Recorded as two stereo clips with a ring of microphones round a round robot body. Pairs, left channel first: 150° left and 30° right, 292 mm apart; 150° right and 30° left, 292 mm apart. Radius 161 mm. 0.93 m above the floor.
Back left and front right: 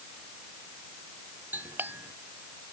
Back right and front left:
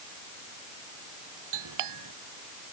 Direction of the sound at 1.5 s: 55° left.